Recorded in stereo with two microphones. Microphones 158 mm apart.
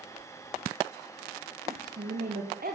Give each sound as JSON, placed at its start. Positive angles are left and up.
{"t": 1.7, "sound": "a woman speaking", "side_deg": -60, "distance_m": 8.0}